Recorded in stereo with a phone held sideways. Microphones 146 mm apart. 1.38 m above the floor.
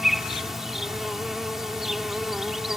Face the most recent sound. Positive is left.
turn(degrees=0)  # may be behind; listen again after turning